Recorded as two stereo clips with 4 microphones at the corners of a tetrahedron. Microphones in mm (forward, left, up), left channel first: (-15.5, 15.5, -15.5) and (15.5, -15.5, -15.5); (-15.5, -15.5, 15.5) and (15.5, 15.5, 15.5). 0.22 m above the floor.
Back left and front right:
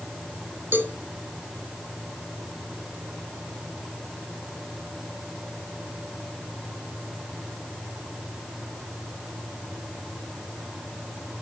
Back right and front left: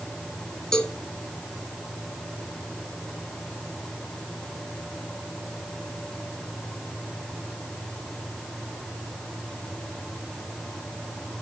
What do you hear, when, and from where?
0.7 s a cowbell: 65° right, 2 m